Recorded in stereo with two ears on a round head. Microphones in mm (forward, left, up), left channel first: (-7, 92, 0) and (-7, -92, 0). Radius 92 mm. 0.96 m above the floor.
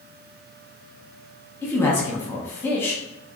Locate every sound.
1.6 s a man speaking: 10° left (ahead or behind), 0.7 m